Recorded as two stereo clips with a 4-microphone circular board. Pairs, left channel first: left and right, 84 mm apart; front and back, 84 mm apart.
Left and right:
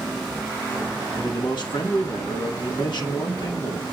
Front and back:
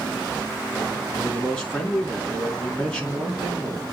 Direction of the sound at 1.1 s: 80° left.